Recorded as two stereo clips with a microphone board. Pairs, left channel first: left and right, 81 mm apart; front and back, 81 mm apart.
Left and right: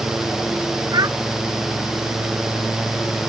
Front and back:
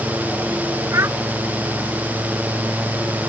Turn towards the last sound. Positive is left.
turn(degrees=-125)